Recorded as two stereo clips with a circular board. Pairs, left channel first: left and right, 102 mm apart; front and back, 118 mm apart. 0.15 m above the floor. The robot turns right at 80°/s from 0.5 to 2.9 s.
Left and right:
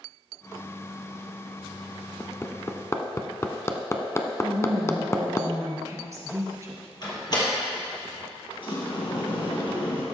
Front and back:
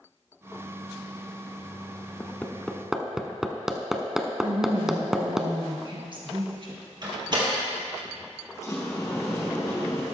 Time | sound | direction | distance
2.2 | hammering | 45° left | 0.8 m
4.4 | a woman speaking | 145° right | 2.5 m
7.0 | a door slam | 130° left | 2.5 m
8.6 | a sliding door | 60° left | 3 m